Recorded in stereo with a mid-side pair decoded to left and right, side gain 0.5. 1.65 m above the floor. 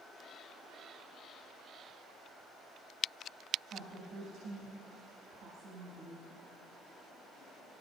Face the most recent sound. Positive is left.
turn(degrees=-60)